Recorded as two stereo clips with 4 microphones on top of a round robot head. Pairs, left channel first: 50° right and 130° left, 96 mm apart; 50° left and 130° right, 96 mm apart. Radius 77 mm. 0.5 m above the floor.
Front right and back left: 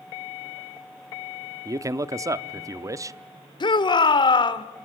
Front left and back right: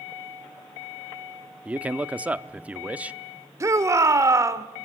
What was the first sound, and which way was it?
A man speaking, 160° left.